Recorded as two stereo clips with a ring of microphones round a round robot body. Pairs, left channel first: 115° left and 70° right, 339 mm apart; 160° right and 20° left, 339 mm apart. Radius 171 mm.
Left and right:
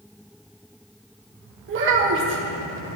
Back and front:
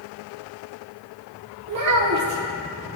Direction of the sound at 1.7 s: 15° right.